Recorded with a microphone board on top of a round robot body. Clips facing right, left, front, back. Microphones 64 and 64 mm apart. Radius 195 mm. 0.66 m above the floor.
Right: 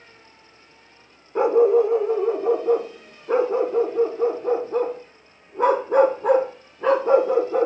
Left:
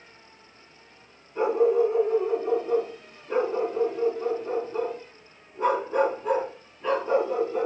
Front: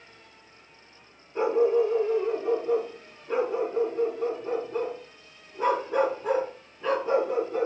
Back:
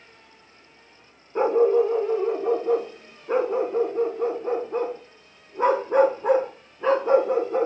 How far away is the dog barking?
About 1.0 m.